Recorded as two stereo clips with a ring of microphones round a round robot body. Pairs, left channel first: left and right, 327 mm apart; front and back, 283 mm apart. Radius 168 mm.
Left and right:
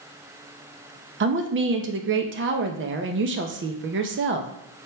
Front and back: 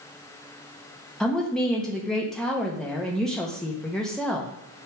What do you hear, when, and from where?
1.2 s a woman speaking: 85° right, 0.6 m